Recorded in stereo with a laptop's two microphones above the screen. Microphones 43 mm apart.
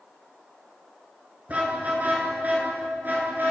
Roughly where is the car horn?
Right.